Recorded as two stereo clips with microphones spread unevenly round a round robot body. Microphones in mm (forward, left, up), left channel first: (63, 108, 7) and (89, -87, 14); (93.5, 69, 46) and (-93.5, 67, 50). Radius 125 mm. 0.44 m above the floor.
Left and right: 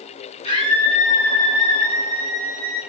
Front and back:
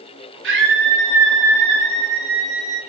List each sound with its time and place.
0.4 s a scream: 165° left, 6 m; by 2.8 s 150° left, 5 m